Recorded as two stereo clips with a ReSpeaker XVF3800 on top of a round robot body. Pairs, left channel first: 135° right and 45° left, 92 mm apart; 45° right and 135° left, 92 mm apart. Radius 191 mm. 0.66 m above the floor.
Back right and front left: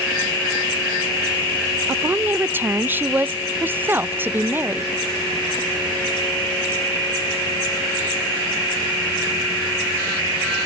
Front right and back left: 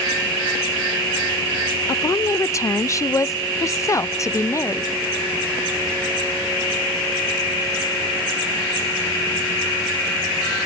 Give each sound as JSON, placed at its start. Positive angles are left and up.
{"t": 1.9, "sound": "a woman speaking", "azimuth_deg": -10, "distance_m": 0.5}